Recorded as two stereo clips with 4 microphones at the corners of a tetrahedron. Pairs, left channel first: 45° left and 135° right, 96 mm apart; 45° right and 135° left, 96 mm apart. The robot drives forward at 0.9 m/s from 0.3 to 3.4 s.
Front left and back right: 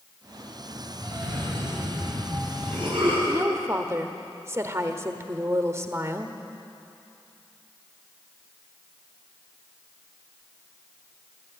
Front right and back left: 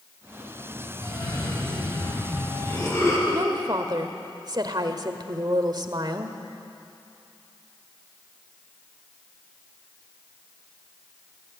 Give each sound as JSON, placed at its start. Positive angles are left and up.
{"t": 1.0, "sound": "a cough", "azimuth_deg": -95, "distance_m": 7.5}
{"t": 3.3, "sound": "a woman speaking", "azimuth_deg": 170, "distance_m": 1.3}